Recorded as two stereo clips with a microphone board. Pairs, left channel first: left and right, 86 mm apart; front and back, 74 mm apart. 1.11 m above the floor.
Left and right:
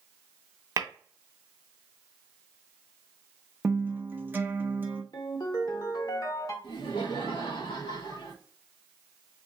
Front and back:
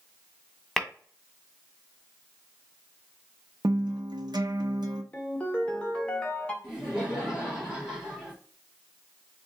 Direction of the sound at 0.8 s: 80° right.